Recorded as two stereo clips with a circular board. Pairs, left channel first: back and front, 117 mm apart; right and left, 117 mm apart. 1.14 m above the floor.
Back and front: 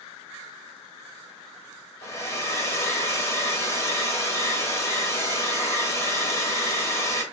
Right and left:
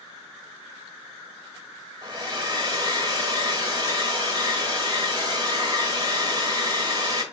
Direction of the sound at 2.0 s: 130° left.